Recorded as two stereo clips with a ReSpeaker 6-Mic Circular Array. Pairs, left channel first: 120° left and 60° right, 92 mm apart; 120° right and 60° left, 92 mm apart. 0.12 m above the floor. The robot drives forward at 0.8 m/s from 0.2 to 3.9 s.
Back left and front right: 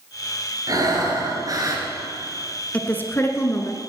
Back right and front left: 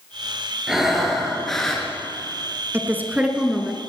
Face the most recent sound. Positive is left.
turn(degrees=150)